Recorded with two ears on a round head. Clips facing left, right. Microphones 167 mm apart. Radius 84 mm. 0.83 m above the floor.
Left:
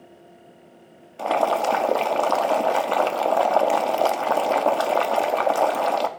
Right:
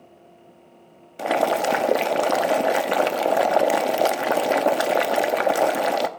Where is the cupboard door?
No cupboard door in this recording.